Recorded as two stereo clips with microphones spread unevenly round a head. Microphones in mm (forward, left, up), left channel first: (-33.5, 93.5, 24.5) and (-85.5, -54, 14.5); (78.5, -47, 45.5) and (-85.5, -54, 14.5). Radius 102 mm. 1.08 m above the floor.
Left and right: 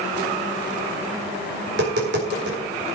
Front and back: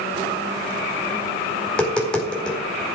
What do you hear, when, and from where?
1.7 s tapping: 80° right, 4 m